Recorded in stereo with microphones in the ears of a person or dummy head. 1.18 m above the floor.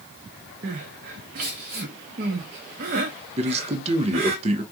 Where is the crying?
40° right (ahead or behind), 0.6 m.